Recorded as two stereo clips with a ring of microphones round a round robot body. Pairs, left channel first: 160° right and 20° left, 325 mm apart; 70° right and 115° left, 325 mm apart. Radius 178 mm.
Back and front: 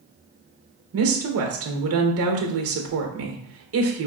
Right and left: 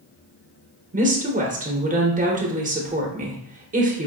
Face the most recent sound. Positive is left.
turn(degrees=50)